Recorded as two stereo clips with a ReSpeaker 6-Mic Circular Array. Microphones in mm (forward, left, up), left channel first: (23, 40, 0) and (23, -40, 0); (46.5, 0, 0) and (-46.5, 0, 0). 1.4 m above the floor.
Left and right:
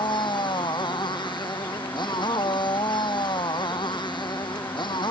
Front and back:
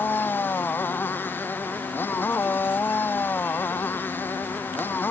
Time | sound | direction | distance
0.0 | a motorcycle | 70° left | ?